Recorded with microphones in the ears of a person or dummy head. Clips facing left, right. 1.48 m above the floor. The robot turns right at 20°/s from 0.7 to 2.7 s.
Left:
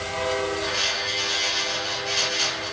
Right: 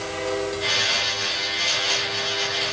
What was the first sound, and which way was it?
Only background noise.